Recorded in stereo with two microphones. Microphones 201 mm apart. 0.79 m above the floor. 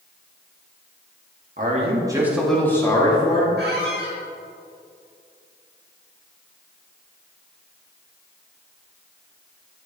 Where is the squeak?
55° right (ahead or behind), 1.8 m.